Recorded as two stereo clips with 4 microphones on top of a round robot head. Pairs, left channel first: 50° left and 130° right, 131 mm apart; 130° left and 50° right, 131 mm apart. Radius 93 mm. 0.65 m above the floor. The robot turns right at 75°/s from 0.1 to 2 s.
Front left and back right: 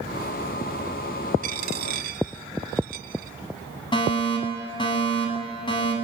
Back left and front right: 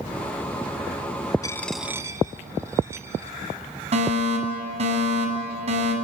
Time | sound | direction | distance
1.4 | a dropped coin | 160° right | 1.6 m
3.9 | a fire alarm | 5° right | 9.5 m